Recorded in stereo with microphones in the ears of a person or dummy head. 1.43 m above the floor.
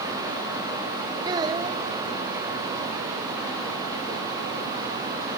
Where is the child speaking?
20° right (ahead or behind), 1.3 m.